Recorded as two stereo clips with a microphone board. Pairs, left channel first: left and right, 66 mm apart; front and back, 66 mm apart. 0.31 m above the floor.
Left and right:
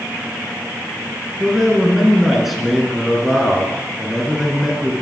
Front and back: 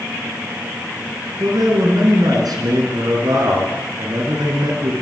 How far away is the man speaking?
About 3 m.